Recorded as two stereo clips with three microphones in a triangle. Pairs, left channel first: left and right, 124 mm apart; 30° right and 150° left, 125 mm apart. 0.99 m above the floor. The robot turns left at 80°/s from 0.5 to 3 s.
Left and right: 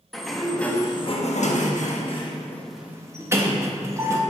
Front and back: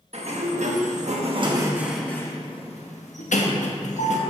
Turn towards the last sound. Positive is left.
turn(degrees=-25)